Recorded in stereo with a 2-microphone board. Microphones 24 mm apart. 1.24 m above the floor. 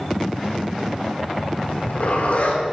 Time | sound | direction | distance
1.7 | a zipper | 75° left (ahead or behind) | 4.5 m